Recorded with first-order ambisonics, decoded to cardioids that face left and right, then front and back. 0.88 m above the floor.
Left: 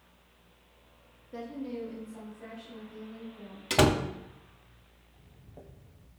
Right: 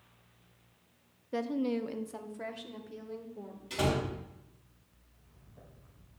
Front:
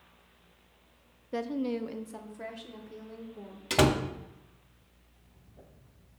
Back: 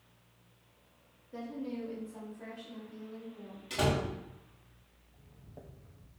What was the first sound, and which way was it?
A woman speaking, 35° right.